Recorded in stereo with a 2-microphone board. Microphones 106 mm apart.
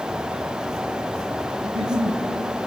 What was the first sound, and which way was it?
A giggle, 55° right (ahead or behind).